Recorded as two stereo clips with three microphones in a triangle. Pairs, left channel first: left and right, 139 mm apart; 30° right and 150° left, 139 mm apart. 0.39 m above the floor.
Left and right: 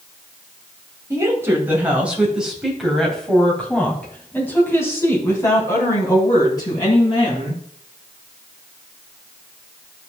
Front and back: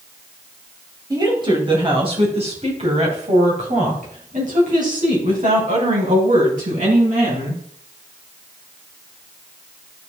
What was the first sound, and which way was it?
A woman speaking, 155° right.